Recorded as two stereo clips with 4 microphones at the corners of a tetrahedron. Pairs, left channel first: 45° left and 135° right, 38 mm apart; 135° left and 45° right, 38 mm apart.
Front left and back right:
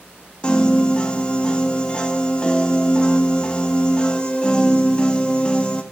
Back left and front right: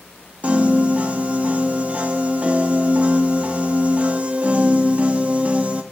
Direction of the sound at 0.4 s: 10° right.